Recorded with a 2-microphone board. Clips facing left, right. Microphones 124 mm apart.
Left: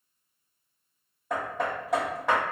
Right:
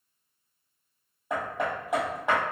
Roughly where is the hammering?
Centre.